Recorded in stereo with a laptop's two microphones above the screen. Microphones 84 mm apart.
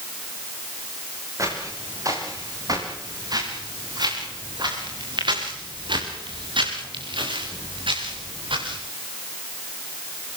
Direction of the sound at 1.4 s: 40° right (ahead or behind).